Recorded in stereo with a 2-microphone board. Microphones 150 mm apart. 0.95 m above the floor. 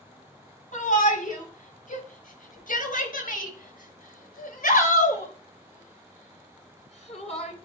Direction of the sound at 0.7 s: 65° left (ahead or behind).